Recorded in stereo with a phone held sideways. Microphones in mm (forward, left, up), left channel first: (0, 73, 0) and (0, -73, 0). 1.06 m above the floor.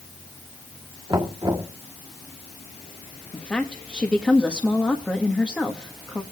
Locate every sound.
1.1 s knocking: 30° right (ahead or behind), 1.3 m
3.3 s a woman speaking: 5° left (ahead or behind), 1.3 m